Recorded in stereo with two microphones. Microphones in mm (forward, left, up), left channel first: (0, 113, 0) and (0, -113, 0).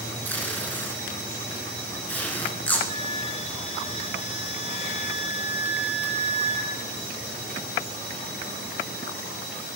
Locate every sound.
0.2 s tape being pulled: 10° left (ahead or behind), 1.4 m
2.9 s a flute: 25° left (ahead or behind), 0.8 m